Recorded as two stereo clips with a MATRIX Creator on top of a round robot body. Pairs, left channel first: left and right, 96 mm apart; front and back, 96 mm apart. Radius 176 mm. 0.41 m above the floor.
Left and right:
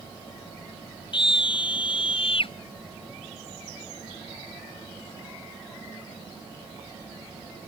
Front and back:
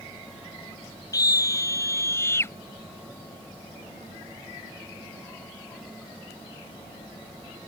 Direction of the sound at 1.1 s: 55° left.